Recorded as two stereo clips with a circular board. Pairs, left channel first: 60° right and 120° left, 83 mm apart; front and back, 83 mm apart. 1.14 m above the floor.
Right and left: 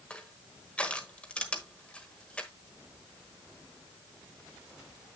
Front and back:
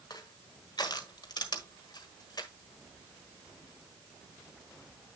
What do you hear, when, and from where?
0.1 s crushing: 10° left, 1.3 m